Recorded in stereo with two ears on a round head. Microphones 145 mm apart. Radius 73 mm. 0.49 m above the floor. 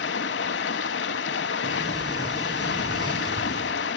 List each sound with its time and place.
0.0 s running water: 75° left (ahead or behind), 0.8 m
1.6 s a sliding door: 25° right (ahead or behind), 3 m